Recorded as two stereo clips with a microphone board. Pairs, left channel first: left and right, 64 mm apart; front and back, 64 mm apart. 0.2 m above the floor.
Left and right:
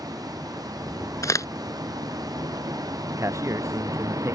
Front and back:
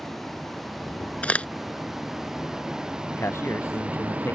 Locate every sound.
0.0 s a vehicle: 85° right; by 4.3 s 115° right
1.2 s a crack: 70° left
3.1 s a man speaking: 50° right